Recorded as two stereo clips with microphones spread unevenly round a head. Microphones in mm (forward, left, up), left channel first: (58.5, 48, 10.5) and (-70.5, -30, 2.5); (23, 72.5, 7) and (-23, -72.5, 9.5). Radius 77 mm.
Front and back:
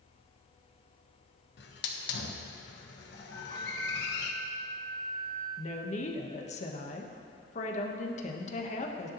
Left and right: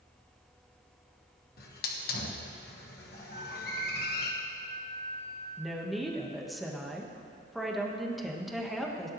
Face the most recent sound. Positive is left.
turn(degrees=-20)